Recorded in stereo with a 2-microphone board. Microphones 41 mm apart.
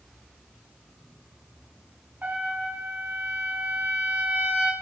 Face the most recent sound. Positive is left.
turn(degrees=-50)  # may be behind; listen again after turning